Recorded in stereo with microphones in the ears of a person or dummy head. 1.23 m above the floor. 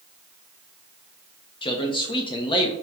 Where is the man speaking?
25° left (ahead or behind), 0.6 m.